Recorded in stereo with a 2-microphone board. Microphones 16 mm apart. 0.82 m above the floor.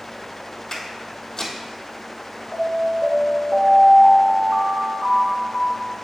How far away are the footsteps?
About 1.3 m.